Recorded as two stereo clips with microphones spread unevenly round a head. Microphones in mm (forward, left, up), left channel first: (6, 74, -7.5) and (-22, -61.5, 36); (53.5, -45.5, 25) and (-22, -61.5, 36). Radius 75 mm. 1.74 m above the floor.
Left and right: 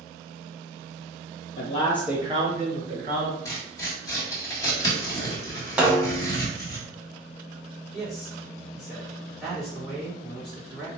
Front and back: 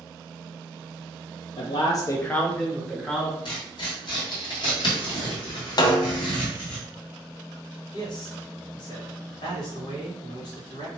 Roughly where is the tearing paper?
Ahead.